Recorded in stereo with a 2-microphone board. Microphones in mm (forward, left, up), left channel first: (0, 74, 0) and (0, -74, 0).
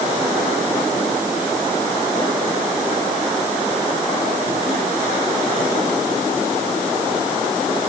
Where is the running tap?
No running tap in this recording.